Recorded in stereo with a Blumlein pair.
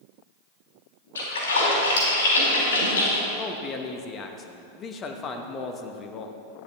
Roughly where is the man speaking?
Ahead left.